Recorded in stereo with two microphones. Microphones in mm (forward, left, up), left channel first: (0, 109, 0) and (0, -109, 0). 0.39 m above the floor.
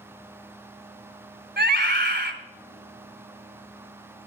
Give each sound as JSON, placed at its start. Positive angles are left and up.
{"t": 1.6, "sound": "a scream", "side_deg": -55, "distance_m": 2.0}